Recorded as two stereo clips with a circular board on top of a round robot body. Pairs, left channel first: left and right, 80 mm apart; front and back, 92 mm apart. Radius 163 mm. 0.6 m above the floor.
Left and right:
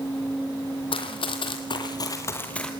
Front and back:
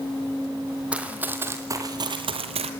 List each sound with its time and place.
0.9 s running footsteps: 100° left, 1.8 m; by 2.7 s 175° left, 1.1 m